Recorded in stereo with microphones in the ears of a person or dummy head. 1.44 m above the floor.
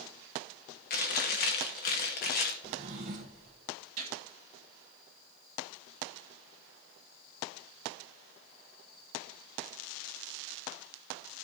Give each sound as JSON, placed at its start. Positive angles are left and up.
{"t": 0.9, "sound": "chewing", "side_deg": 45, "distance_m": 1.0}
{"t": 2.6, "sound": "a drawer", "side_deg": -30, "distance_m": 0.5}
{"t": 4.0, "sound": "a gunshot", "side_deg": -35, "distance_m": 2.0}